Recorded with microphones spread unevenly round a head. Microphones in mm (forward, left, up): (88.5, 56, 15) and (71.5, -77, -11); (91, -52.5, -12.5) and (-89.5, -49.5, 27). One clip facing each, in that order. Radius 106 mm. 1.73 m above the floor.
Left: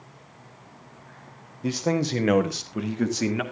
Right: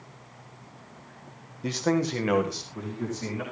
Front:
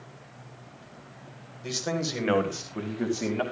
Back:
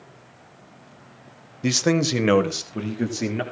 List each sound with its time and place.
1.6 s a man speaking: 170° left, 1.3 m; by 3.4 s 105° left, 2 m